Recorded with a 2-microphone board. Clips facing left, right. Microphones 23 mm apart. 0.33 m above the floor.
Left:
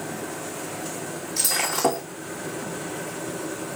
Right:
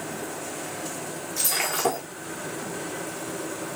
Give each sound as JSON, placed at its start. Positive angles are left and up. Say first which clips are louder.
{"t": 1.4, "sound": "breaking glass", "louder": "left 2 dB", "side_deg": 90, "distance_m": 4.0}